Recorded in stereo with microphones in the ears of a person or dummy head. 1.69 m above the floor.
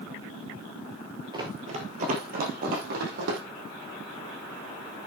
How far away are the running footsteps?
About 2.5 m.